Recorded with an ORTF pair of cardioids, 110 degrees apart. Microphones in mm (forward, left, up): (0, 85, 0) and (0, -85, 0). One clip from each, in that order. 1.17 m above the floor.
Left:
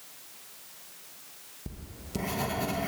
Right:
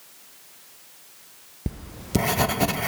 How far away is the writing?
About 0.5 m.